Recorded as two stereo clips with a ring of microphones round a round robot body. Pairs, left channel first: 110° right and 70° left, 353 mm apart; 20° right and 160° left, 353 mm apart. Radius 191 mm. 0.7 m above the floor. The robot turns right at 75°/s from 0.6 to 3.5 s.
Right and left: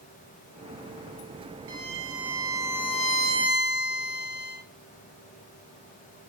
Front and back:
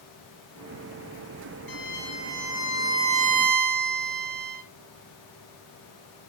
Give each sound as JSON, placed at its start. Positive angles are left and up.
{"t": 1.7, "sound": "a violin", "azimuth_deg": 10, "distance_m": 2.0}